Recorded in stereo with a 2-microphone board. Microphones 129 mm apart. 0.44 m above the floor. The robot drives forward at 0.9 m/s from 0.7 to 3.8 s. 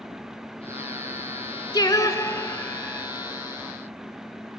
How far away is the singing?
About 1.1 m.